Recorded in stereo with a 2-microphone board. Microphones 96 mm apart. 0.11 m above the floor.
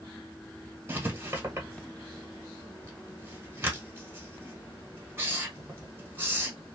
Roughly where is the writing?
Right.